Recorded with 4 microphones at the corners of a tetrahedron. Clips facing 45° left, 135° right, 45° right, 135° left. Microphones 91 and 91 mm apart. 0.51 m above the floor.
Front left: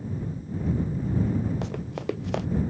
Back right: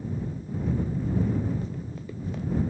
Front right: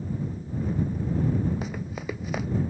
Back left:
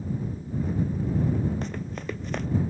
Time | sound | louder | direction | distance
1.6 | running footsteps | front left 6 dB, even | 40° left | ?